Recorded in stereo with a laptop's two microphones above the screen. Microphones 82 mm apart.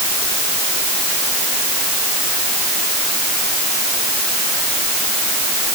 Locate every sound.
Only background noise.